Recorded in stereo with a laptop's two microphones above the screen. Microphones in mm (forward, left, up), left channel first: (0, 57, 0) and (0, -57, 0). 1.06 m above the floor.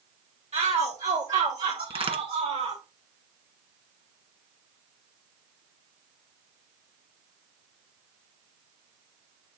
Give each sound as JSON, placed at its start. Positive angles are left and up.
{"t": 0.5, "sound": "a shout", "side_deg": -75, "distance_m": 1.9}
{"t": 1.9, "sound": "a crack", "side_deg": -55, "distance_m": 1.6}